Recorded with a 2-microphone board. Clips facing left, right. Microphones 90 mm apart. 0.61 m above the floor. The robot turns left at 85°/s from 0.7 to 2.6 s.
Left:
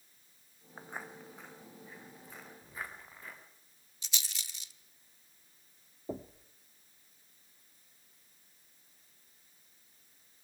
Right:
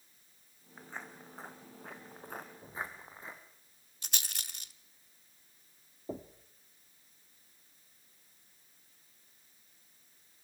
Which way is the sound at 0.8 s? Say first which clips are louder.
Left 2 dB; 30° left (ahead or behind).